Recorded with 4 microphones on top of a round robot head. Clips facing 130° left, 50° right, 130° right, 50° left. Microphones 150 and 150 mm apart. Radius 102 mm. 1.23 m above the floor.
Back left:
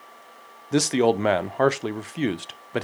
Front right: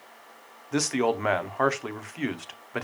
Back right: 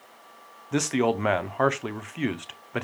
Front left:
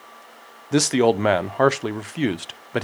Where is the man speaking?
85° left, 0.6 m.